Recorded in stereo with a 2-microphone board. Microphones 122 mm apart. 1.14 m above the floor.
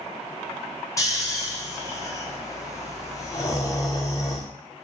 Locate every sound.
1.0 s snoring: 25° left (ahead or behind), 0.6 m